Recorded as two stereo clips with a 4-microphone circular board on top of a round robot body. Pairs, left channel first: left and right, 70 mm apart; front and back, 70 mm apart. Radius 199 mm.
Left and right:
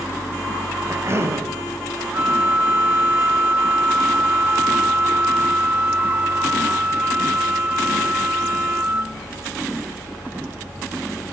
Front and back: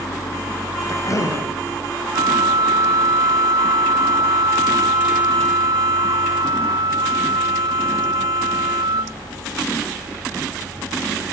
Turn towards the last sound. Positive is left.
turn(degrees=-155)